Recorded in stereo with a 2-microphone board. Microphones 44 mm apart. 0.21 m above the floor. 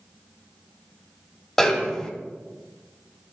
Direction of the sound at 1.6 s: 5° left (ahead or behind).